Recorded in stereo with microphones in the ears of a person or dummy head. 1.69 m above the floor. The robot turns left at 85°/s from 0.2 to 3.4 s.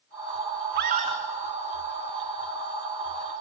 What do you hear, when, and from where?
0.8 s a scream: 120° right, 3 m; by 1.2 s 160° right, 3 m